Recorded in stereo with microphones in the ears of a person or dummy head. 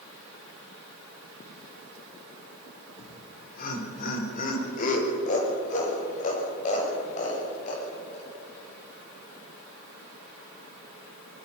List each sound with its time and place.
3.0 s laughter: 55° left (ahead or behind), 4 m; by 8.3 s 45° left (ahead or behind), 8.5 m